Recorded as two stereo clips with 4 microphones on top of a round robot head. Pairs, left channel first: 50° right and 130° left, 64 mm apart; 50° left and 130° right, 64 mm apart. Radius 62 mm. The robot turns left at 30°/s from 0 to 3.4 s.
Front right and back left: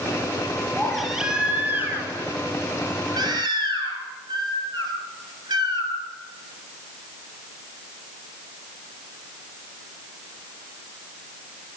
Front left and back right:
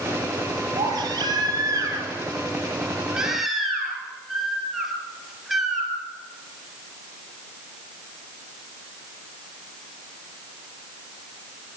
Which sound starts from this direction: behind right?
A baby crying, at 0.8 s.